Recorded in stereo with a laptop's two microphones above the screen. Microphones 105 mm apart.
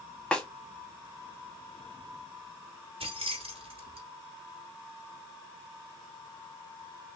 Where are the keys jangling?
75° right (ahead or behind), 1.5 m.